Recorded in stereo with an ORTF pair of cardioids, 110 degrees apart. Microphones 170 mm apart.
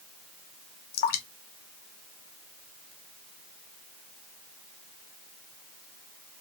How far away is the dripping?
About 0.9 m.